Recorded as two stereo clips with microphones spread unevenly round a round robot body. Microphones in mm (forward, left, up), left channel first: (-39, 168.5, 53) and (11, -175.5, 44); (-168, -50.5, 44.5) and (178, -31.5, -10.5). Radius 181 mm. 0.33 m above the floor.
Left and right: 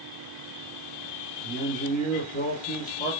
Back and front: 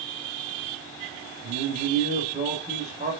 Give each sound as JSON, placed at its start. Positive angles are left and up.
{"t": 1.4, "sound": "a man speaking", "azimuth_deg": 45, "distance_m": 1.1}